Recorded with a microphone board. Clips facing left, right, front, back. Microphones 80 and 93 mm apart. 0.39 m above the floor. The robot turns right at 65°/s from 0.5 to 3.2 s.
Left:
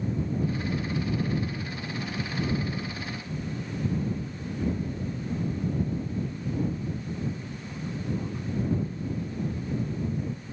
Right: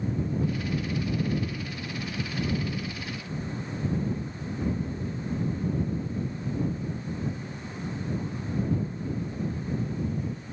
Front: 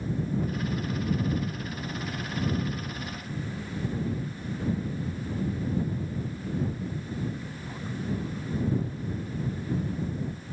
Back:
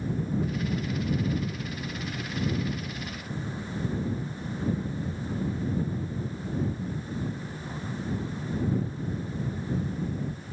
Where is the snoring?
I don't hear snoring.